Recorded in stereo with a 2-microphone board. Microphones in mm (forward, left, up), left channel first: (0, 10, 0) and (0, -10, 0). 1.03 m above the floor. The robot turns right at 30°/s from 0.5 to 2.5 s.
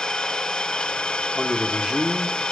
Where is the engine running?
80° left, 3.5 m; by 2.5 s 140° left, 3.5 m.